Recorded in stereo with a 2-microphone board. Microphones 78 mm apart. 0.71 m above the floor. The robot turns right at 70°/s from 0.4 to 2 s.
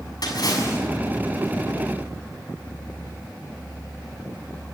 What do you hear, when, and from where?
0.2 s a splash: 55° left (ahead or behind), 6.5 m; by 0.8 s 25° left (ahead or behind), 6.5 m